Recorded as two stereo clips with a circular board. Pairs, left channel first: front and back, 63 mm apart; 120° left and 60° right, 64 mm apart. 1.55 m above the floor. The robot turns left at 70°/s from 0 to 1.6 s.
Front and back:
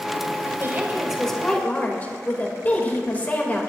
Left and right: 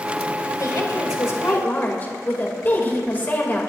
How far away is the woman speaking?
About 3 m.